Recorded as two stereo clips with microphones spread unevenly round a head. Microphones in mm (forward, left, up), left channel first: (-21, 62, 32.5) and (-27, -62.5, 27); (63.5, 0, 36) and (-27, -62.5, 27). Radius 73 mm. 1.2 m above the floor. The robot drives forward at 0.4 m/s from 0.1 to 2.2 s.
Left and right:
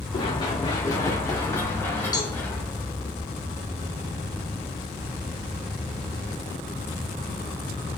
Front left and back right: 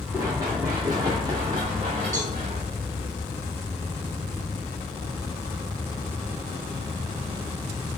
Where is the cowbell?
145° left, 5 m.